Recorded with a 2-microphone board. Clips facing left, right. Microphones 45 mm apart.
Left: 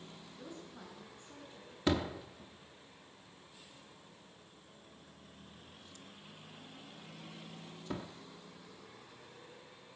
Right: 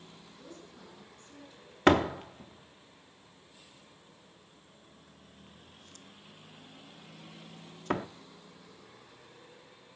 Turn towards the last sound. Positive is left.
turn(degrees=-60)  # may be behind; listen again after turning